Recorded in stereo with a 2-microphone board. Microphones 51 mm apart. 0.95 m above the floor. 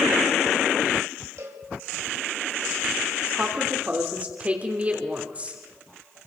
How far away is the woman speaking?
About 3 m.